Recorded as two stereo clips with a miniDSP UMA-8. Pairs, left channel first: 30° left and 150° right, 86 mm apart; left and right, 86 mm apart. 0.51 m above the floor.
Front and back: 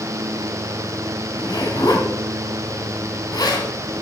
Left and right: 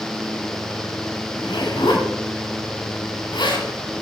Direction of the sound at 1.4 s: 65° left.